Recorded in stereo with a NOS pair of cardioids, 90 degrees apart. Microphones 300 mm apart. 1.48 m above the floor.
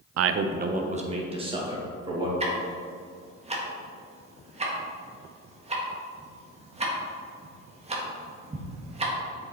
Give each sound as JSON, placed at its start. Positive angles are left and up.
{"t": 0.2, "sound": "a man speaking", "azimuth_deg": -60, "distance_m": 0.5}
{"t": 2.4, "sound": "ticking", "azimuth_deg": -20, "distance_m": 1.6}